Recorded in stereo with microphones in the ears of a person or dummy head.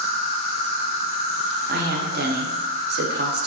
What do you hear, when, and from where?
0.0 s an insect: 35° left (ahead or behind), 1.2 m
1.7 s a woman speaking: 50° right (ahead or behind), 0.7 m